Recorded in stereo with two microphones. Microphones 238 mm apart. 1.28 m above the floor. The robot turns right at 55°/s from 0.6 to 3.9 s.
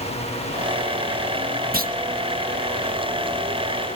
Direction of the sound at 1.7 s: 40° right (ahead or behind).